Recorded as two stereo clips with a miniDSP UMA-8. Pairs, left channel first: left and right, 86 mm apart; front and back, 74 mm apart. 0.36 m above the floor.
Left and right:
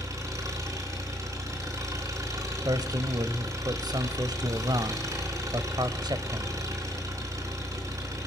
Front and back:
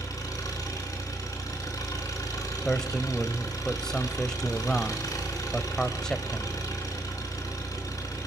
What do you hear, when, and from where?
0.0 s an engine running: 40° right, 4.5 m
2.6 s a man speaking: 80° right, 1.3 m